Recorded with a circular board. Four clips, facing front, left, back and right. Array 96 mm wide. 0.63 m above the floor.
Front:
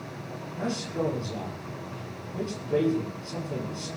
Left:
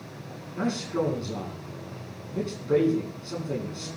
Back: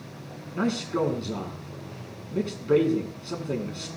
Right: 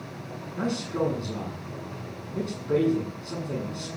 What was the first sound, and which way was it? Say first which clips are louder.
A man speaking: left 1 dB, back 5 dB; straight behind.